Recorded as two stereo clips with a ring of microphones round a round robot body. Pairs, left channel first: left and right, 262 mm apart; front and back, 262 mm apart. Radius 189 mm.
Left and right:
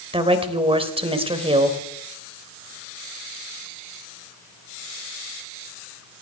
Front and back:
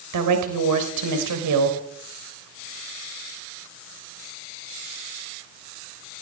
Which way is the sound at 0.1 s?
160° right.